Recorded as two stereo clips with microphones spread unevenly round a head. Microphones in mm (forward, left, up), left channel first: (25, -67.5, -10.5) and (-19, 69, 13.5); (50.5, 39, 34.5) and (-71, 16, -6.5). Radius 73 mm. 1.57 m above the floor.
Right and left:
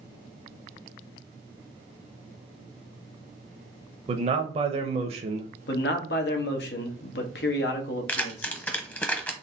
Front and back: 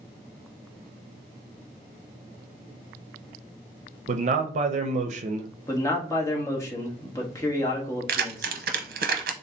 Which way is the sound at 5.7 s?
60° right.